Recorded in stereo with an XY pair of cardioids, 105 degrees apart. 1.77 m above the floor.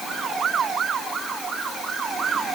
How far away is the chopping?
I don't hear chopping.